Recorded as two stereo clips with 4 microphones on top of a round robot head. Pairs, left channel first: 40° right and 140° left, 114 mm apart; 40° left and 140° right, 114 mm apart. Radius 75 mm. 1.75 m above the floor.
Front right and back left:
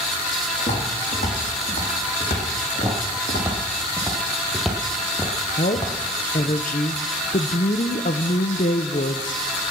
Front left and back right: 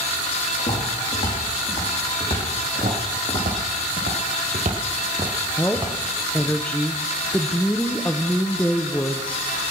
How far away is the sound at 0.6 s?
About 6.5 m.